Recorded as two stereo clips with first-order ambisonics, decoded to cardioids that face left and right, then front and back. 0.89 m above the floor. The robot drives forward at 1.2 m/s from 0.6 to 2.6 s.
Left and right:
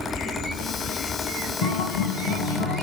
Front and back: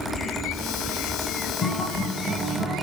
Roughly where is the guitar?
Left.